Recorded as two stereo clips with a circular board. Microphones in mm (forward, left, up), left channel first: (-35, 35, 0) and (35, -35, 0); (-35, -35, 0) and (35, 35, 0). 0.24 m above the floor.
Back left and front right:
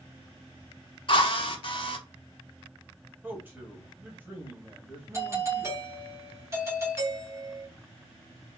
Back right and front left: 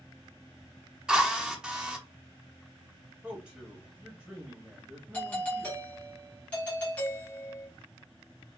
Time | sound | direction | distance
1.1 | a drill | 125° left | 0.5 m
3.2 | a man speaking | 15° right | 1.0 m
5.1 | a doorbell | 70° right | 1.5 m